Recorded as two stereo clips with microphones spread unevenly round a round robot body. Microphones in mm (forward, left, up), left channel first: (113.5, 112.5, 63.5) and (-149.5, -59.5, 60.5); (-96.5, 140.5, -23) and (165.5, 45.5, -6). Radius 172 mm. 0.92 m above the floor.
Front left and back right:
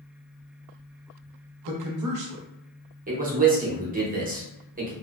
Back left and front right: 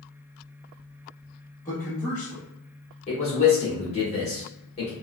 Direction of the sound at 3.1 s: 170° right.